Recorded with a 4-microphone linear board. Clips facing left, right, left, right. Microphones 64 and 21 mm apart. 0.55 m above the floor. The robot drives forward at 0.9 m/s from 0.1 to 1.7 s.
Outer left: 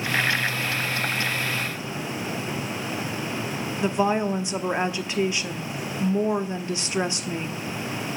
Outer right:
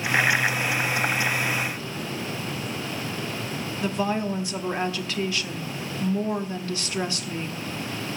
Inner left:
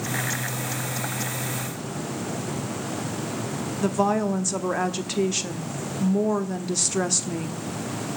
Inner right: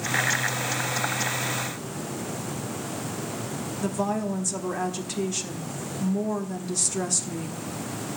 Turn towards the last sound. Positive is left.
turn(degrees=20)  # may be behind; listen again after turning